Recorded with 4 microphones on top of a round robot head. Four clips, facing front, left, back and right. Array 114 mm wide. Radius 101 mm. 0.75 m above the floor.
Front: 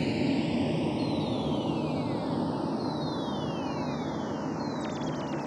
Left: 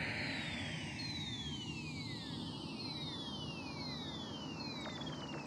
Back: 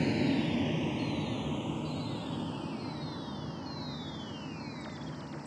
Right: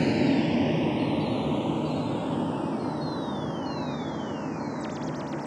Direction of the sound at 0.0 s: 80° right.